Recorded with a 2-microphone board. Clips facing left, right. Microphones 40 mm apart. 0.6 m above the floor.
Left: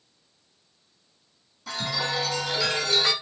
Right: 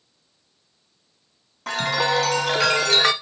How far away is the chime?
About 0.5 m.